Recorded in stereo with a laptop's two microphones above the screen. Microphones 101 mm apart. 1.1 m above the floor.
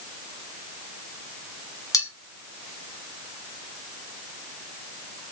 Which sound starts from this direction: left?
Cutlery clinking, at 1.9 s.